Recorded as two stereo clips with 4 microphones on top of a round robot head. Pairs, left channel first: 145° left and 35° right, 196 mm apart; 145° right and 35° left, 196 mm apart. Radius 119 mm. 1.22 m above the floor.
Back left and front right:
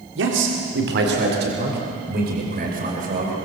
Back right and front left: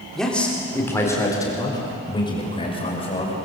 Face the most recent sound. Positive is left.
turn(degrees=-85)